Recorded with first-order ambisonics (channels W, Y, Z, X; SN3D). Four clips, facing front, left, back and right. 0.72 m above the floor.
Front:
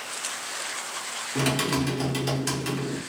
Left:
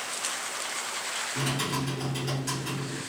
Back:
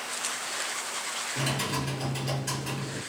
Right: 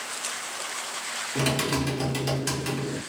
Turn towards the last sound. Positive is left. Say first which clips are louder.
# right 6 dB, front 7 dB
turn(degrees=-35)